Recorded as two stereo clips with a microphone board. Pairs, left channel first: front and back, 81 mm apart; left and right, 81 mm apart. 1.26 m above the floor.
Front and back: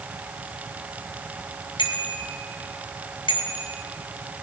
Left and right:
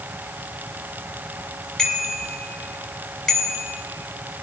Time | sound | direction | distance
1.8 | a bicycle bell | 10° left | 8 m